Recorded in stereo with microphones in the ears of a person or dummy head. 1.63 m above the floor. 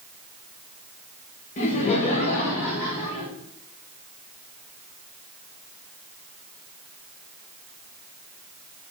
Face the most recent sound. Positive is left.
turn(degrees=45)  # may be behind; listen again after turning